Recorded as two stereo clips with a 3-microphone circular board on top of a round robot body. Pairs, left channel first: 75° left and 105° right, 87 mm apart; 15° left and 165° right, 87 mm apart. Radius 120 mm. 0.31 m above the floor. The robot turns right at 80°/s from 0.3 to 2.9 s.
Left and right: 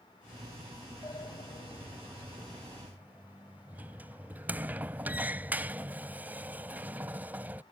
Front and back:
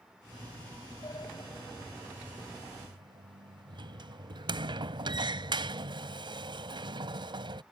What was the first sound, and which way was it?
A sliding door, 35° left.